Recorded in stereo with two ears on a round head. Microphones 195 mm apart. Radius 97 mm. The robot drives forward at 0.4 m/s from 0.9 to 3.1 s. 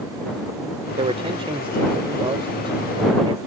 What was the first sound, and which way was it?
A man speaking, 30° right (ahead or behind).